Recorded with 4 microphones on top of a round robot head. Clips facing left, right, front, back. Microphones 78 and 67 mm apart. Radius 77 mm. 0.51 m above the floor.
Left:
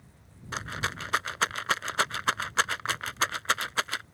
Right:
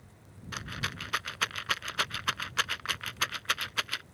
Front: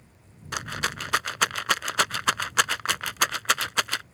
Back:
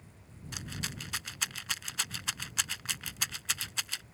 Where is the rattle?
25° left.